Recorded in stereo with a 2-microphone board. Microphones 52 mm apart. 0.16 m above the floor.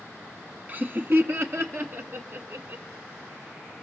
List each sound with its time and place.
0.7 s laughter: 30° right (ahead or behind), 1.3 m; by 2.8 s 60° right (ahead or behind), 3 m